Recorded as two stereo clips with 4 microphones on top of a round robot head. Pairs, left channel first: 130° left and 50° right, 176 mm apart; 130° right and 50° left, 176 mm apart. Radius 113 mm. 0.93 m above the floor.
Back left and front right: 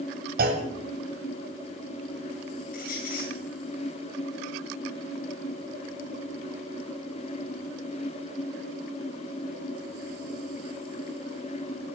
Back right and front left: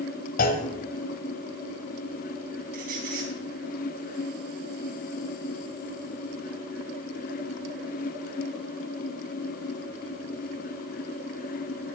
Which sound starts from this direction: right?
A clunk, at 0.4 s.